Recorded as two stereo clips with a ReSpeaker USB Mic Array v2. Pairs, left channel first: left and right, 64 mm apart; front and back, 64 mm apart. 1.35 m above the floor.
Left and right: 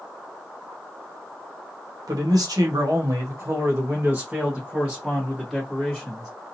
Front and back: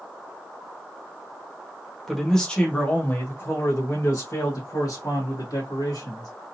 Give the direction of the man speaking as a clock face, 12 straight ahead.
3 o'clock.